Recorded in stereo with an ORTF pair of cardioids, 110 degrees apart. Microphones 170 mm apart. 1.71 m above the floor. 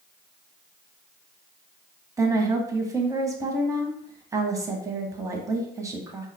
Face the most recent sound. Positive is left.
turn(degrees=-20)